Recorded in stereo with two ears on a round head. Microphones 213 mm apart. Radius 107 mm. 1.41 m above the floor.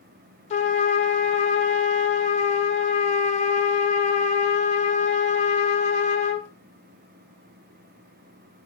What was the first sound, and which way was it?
A trumpet, 25° left (ahead or behind).